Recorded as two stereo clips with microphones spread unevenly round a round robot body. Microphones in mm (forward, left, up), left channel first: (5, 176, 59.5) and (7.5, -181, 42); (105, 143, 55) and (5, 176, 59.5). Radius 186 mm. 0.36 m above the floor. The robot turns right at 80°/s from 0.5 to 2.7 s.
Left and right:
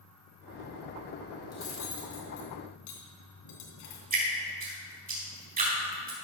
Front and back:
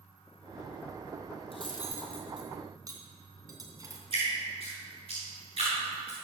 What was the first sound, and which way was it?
Cutlery clinking, 10° left.